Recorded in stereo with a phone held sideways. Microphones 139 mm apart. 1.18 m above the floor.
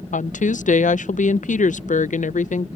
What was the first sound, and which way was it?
A woman speaking, 70° left (ahead or behind).